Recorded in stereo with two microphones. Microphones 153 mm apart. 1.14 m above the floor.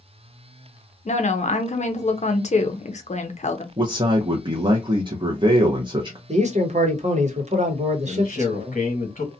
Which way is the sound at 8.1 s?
50° left (ahead or behind).